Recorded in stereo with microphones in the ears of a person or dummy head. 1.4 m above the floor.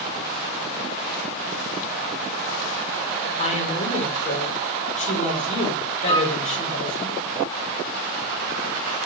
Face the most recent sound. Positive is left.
turn(degrees=25)  # may be behind; listen again after turning